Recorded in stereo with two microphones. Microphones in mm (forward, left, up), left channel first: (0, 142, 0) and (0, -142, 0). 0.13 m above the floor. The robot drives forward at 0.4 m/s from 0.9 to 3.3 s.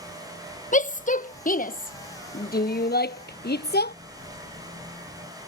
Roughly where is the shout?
Left.